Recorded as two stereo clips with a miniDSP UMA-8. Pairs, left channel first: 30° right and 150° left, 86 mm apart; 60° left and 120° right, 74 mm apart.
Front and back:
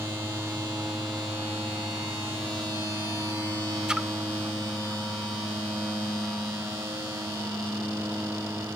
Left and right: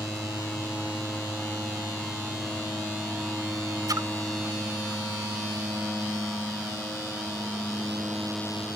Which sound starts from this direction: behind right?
A splash, at 3.9 s.